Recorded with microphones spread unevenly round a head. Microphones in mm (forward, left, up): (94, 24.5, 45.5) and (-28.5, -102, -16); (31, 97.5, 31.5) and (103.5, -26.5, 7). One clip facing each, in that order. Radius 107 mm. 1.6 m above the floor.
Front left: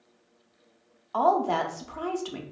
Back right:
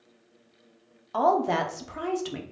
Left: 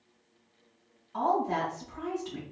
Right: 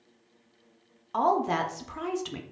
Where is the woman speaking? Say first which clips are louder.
Even, right 3 dB; 55° right, 0.6 m.